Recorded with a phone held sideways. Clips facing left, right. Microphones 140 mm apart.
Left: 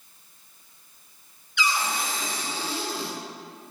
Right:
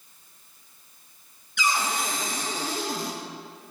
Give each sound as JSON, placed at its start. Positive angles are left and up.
{"t": 1.6, "sound": "a cupboard door", "side_deg": -40, "distance_m": 1.0}